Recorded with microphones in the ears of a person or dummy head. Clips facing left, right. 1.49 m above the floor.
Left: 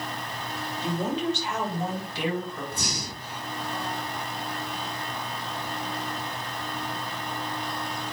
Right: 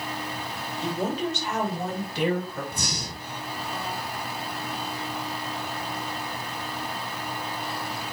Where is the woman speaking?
50° right (ahead or behind), 3 m.